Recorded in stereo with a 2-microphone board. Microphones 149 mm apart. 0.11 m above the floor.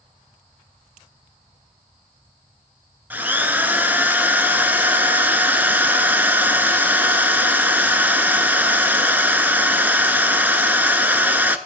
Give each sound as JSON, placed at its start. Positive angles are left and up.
{"t": 3.1, "sound": "a drill", "side_deg": -15, "distance_m": 0.5}